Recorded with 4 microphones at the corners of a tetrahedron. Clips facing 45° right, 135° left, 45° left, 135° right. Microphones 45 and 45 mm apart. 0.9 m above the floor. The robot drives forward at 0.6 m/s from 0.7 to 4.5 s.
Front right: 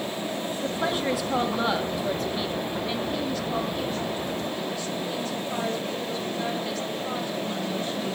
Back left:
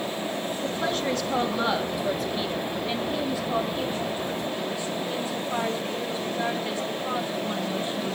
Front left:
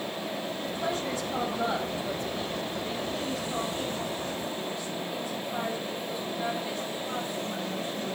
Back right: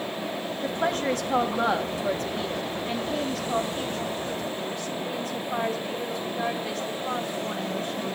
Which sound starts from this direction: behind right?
A woman speaking, at 0.6 s.